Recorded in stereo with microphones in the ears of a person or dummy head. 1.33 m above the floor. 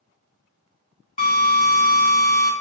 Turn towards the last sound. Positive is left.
turn(degrees=35)  # may be behind; listen again after turning